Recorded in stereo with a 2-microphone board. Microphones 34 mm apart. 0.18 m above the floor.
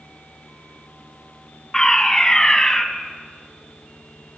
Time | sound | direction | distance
1.7 | a fire alarm | 15° left (ahead or behind) | 2 m